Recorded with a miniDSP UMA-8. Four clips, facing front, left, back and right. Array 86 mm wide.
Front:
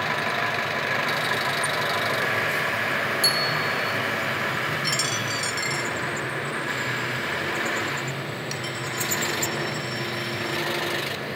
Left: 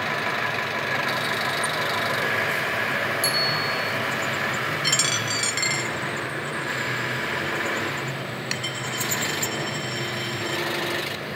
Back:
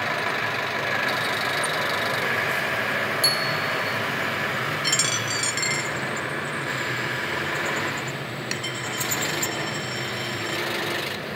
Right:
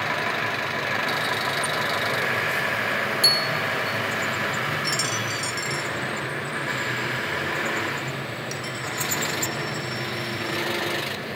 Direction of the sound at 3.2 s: 85° right.